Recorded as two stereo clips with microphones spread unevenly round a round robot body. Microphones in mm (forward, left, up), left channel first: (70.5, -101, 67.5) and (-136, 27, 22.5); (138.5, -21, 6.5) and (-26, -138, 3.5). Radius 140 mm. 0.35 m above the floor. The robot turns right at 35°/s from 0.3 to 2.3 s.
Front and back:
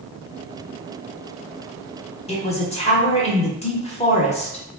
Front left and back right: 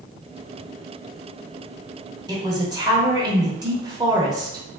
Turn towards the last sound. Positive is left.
turn(degrees=-95)